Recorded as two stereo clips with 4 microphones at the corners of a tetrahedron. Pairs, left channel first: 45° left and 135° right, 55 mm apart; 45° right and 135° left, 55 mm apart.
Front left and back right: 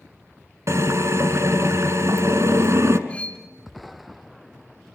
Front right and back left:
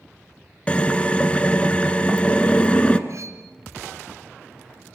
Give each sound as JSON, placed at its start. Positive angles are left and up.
{"t": 0.7, "sound": "a drill", "azimuth_deg": -115, "distance_m": 1.7}
{"t": 3.1, "sound": "cutlery clinking", "azimuth_deg": 110, "distance_m": 3.0}